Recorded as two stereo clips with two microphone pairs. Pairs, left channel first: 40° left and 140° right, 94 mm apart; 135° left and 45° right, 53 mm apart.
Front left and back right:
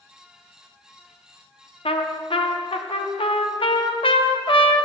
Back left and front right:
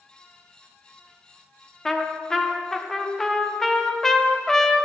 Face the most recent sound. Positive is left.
turn(degrees=55)